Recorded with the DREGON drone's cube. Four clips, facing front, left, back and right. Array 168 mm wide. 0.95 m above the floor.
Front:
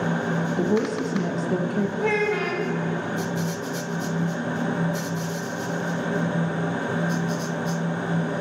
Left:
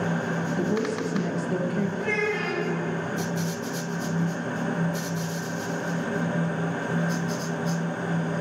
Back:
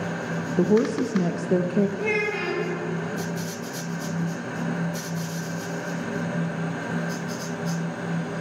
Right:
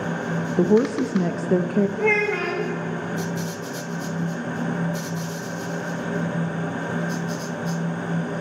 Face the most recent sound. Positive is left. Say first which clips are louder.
# right 5 dB, front 3 dB
turn(degrees=-70)